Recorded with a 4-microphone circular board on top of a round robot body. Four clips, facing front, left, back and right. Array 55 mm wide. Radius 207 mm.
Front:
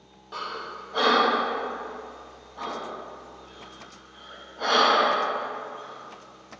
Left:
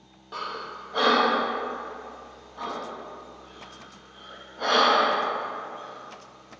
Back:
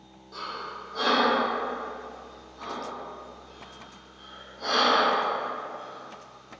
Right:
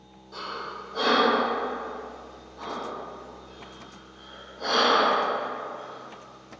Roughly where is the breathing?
Ahead left.